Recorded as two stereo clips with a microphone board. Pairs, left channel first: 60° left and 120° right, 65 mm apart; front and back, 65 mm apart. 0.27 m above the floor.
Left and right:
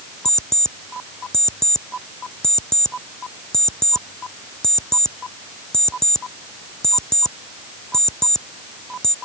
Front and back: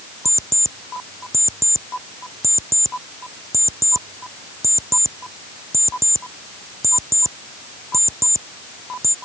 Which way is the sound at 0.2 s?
140° left.